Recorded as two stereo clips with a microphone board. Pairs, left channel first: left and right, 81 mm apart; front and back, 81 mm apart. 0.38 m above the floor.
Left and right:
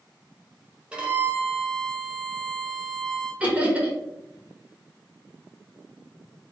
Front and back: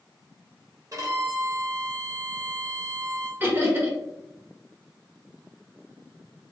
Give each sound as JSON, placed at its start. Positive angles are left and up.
{"t": 0.9, "sound": "a violin", "azimuth_deg": -160, "distance_m": 1.0}
{"t": 3.4, "sound": "laughter", "azimuth_deg": -145, "distance_m": 1.0}